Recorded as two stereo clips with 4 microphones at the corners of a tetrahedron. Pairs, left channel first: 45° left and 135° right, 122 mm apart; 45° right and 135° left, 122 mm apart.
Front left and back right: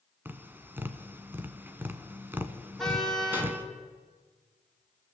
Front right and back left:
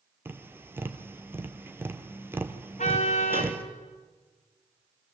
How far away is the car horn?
About 3.5 m.